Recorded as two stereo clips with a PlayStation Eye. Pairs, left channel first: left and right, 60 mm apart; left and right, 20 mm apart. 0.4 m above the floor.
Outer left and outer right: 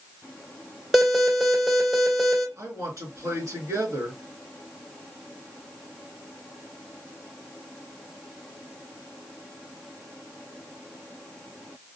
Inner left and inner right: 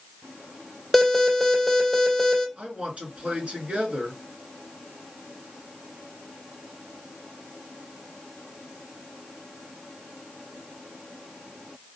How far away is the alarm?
About 1.9 m.